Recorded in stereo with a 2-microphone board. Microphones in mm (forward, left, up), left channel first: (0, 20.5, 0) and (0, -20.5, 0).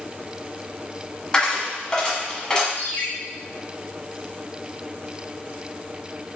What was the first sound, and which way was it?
A dropped coin, 20° left (ahead or behind).